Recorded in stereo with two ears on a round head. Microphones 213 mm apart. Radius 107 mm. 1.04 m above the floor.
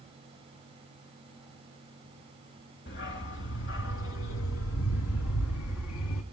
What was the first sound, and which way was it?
A dog barking, 50° left (ahead or behind).